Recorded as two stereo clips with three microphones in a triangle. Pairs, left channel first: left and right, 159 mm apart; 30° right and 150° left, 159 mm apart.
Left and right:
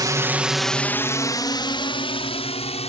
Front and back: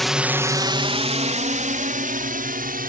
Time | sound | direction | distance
0.0 | a drone | 120° right | ?